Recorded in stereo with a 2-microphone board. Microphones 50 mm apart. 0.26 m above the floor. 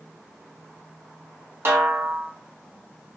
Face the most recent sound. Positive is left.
turn(degrees=-55)  # may be behind; listen again after turning